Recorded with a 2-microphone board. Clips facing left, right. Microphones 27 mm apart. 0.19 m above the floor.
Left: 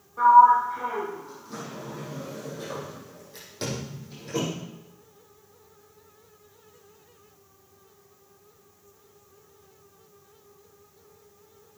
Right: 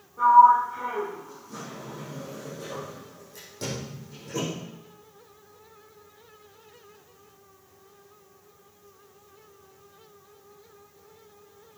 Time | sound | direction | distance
0.2 | a sliding door | 40° left (ahead or behind) | 5.5 m